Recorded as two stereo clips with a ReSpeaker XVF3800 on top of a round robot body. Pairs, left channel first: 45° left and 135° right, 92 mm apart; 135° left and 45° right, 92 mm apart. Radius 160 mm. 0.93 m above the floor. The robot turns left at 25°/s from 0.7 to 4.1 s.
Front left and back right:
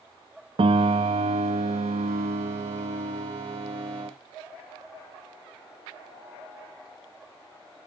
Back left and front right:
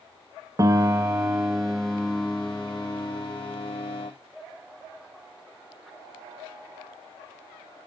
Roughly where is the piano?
Right.